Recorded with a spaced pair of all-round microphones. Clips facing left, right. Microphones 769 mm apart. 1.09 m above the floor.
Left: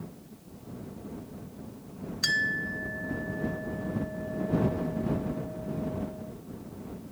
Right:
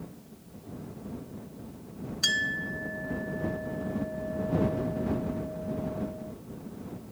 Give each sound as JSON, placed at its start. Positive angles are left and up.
{"t": 2.2, "sound": "a clink", "side_deg": -60}